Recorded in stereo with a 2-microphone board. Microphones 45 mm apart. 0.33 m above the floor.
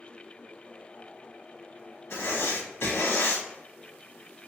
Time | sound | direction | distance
2.1 | writing | 70° left (ahead or behind) | 1.1 m